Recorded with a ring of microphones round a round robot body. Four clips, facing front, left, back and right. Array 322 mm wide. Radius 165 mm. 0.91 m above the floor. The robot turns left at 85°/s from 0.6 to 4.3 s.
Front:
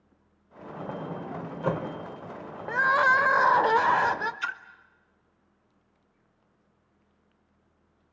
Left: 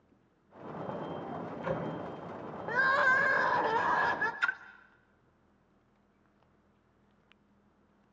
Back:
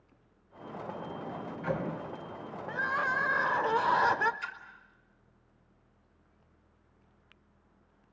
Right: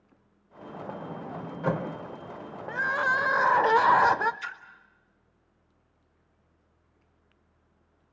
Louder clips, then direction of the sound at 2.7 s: Even, front 10 dB; 30° left.